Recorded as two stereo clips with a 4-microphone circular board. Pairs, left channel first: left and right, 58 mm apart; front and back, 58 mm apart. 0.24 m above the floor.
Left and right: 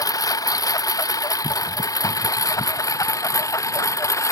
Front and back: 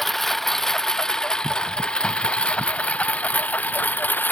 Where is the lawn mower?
90° left; by 4.3 s 60° left.